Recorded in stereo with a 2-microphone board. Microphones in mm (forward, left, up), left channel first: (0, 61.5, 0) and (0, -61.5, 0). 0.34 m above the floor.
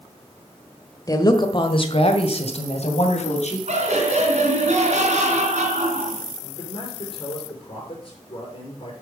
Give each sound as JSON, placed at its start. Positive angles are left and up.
{"t": 1.1, "sound": "a woman speaking", "side_deg": 30, "distance_m": 1.3}
{"t": 3.7, "sound": "laughter", "side_deg": -70, "distance_m": 3.5}
{"t": 6.4, "sound": "a man speaking", "side_deg": 45, "distance_m": 5.0}